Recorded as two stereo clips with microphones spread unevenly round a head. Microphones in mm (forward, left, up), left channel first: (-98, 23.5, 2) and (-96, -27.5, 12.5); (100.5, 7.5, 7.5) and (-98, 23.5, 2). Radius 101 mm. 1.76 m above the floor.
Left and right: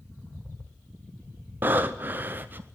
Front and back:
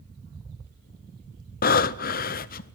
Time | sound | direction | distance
1.6 | breathing | 40° right | 0.5 m